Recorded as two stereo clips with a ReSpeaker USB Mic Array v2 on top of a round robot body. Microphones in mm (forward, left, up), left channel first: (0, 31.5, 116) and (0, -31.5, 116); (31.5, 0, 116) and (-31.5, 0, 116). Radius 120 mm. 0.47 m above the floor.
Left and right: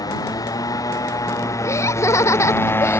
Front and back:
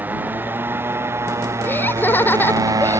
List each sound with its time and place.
0.0 s a motorcycle: 115° left; by 3.0 s 150° left
1.6 s laughter: 55° left